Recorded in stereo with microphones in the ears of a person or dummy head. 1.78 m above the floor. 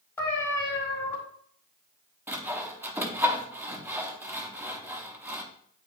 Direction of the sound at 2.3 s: 10° right (ahead or behind).